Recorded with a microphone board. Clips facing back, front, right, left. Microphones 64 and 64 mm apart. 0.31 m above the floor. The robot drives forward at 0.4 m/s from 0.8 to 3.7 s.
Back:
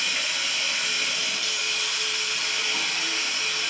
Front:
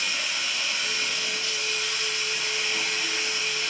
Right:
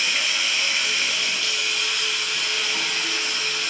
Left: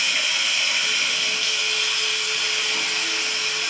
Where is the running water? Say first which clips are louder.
Back 1 dB, even; straight behind, 1.2 m.